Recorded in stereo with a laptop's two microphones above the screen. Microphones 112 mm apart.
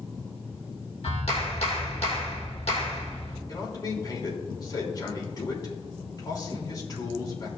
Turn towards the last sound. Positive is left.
turn(degrees=40)  # may be behind; listen again after turning